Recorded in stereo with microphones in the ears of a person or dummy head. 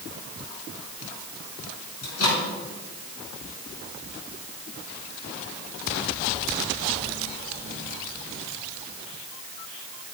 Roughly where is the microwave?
Left.